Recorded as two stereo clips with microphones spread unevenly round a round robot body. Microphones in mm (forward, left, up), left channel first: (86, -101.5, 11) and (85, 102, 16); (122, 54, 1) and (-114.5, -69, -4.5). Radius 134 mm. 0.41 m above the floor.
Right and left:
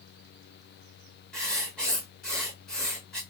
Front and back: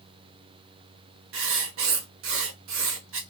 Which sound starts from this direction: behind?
Writing, at 1.3 s.